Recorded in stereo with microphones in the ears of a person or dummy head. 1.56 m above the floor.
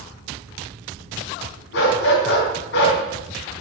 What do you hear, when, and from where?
1.7 s a dog barking: 65° left (ahead or behind), 4 m